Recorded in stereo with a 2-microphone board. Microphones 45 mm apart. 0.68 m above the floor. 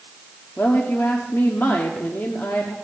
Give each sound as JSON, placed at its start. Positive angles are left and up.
{"t": 0.6, "sound": "a woman speaking", "side_deg": 55, "distance_m": 1.2}